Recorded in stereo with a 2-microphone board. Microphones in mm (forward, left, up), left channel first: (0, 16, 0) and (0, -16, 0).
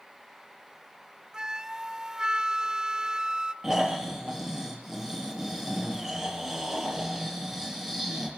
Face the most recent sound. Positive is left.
turn(degrees=-15)  # may be behind; listen again after turning